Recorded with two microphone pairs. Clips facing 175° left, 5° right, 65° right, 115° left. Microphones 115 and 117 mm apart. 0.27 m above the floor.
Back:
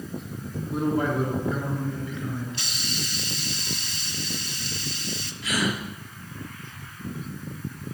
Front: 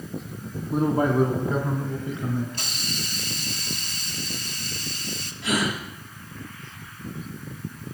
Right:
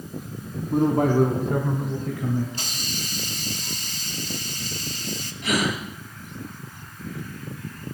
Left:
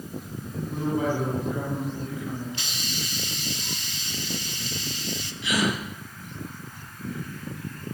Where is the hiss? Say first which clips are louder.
Even, right 1 dB; 30° right, 1.3 m.